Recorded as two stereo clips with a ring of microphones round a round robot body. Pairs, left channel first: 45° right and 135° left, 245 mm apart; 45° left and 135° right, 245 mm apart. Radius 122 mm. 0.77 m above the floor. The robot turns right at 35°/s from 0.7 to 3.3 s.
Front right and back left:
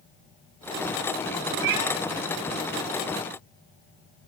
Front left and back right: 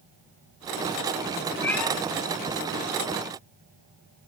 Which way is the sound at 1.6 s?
125° left.